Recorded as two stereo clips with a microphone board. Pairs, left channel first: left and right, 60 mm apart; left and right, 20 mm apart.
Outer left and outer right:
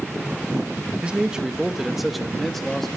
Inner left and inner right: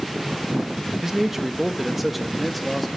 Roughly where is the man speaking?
Centre.